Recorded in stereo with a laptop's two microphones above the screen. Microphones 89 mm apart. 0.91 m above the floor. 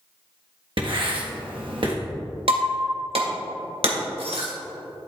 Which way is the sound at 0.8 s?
60° right (ahead or behind).